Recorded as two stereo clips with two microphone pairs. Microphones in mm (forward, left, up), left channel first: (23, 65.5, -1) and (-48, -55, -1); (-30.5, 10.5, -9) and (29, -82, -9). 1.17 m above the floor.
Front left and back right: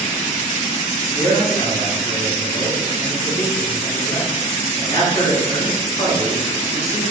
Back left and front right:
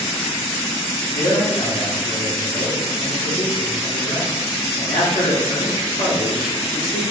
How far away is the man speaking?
About 1.8 m.